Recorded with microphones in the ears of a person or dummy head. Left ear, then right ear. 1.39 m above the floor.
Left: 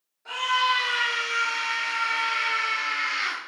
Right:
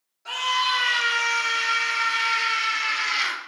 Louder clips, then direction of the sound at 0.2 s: Even; 25° right (ahead or behind).